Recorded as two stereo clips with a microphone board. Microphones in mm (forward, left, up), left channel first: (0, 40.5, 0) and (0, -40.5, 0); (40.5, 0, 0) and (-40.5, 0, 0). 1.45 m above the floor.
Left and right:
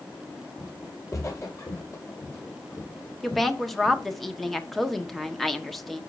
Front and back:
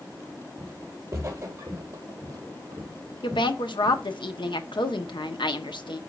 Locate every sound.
0.6 s footsteps: 135° left, 2 m
3.2 s a woman speaking: straight ahead, 1.1 m